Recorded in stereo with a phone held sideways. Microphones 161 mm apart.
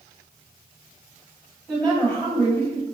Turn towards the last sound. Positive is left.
turn(degrees=20)  # may be behind; listen again after turning